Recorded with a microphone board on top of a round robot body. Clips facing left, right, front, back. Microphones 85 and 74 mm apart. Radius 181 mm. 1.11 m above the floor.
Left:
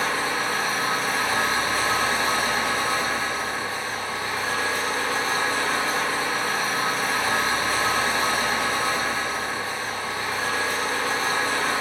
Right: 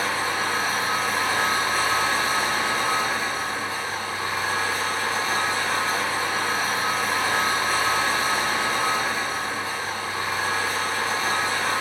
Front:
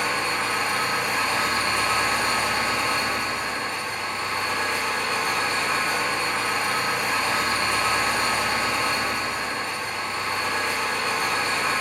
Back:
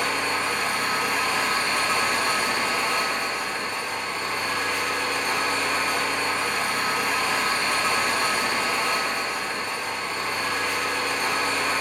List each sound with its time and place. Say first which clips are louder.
0.0 s an engine running: even, even; 50° left, 1.9 m